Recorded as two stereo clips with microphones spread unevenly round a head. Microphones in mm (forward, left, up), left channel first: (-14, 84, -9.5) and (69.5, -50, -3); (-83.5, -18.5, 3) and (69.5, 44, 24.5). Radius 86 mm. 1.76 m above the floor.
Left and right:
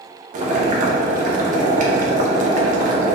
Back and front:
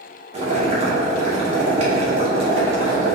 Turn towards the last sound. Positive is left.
turn(degrees=-25)